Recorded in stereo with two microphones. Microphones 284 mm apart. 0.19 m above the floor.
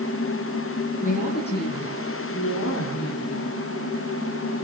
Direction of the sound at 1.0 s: 25° left (ahead or behind).